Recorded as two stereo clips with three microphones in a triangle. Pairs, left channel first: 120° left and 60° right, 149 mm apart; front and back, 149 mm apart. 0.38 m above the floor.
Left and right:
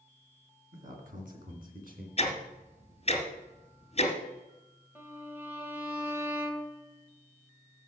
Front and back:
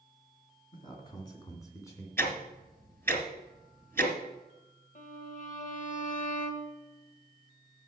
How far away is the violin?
About 1.2 m.